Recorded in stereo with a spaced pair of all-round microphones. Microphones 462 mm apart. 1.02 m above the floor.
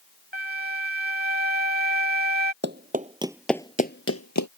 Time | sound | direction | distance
0.3 | a flute | 20° right (ahead or behind) | ?
2.6 | running footsteps | 25° right (ahead or behind) | ?